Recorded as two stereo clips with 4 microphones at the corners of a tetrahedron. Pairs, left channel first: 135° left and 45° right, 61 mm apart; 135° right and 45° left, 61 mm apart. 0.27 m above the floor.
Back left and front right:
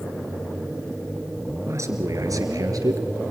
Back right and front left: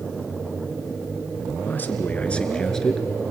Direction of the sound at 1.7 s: 80° right.